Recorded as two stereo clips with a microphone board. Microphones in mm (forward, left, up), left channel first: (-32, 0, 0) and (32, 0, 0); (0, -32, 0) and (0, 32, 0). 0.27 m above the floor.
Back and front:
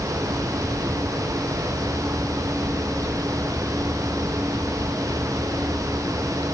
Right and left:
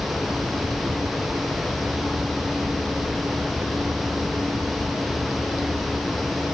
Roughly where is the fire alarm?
I don't hear a fire alarm.